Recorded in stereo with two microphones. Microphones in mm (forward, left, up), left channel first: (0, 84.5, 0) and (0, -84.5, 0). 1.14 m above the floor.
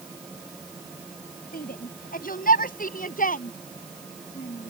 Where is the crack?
No crack in this recording.